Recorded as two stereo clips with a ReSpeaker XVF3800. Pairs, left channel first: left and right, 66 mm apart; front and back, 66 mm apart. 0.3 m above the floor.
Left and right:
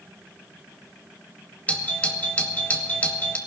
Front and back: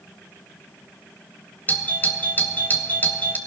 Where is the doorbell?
35° left, 1.9 m.